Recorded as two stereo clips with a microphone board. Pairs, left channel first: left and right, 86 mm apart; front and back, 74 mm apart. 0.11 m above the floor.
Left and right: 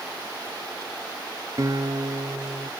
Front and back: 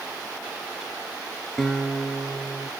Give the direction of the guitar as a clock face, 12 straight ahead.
3 o'clock.